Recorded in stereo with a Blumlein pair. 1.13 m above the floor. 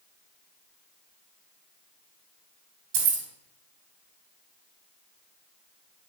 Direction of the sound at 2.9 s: 50° right.